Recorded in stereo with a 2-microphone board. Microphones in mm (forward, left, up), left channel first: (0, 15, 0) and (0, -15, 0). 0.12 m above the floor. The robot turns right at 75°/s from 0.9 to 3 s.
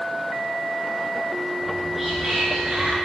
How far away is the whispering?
About 1.2 m.